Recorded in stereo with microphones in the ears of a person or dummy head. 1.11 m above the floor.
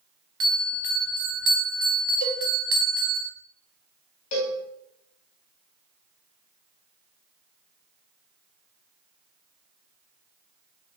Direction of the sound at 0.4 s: 15° right (ahead or behind).